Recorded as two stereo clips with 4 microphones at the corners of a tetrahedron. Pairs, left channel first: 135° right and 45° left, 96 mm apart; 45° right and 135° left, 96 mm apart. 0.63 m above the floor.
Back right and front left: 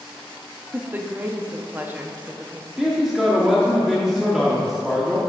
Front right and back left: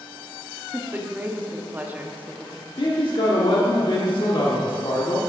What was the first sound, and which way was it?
A woman speaking, 95° left.